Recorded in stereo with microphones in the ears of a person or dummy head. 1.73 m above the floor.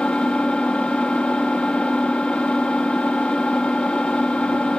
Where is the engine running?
5° left (ahead or behind).